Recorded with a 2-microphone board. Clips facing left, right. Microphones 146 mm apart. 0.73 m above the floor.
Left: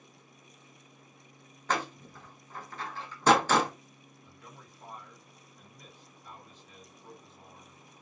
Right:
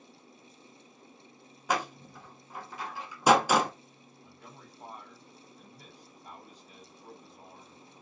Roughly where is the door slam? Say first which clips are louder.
Right 1 dB; centre.